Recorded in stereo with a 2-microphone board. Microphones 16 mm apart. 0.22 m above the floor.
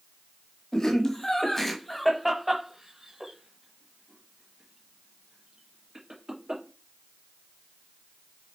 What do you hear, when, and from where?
0.7 s laughter: 40° left (ahead or behind), 1.7 m; by 6.6 s 50° right (ahead or behind), 4 m